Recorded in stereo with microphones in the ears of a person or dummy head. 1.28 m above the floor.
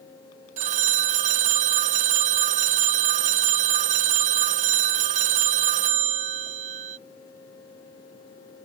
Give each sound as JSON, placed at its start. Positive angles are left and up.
{"t": 0.6, "sound": "a phone ringing", "side_deg": -40}